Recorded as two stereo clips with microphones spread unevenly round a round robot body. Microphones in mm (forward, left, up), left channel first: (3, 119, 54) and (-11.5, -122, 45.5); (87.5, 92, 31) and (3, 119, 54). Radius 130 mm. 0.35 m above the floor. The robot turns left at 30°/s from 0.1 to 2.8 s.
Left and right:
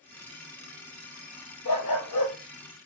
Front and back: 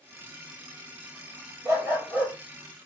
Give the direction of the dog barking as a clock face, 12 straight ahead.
8 o'clock.